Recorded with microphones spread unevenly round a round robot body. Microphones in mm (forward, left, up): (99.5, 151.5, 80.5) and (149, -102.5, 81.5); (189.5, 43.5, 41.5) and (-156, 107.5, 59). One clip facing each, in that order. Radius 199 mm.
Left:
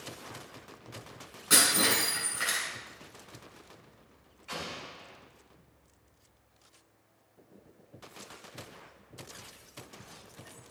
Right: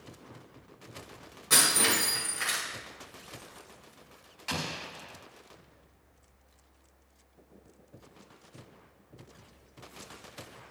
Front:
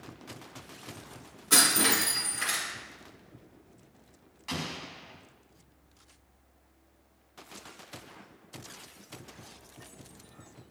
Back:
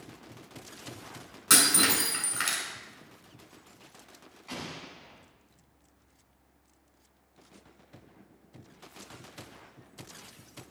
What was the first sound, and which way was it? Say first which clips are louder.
Breaking glass: left 1 dB, even; 175° right.